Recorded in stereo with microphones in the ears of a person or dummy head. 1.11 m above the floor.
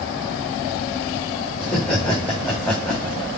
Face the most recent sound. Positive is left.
turn(degrees=5)  # may be behind; listen again after turning